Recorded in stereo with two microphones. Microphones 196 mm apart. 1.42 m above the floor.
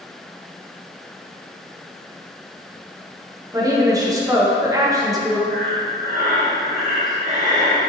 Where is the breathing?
40° right (ahead or behind), 1.2 m.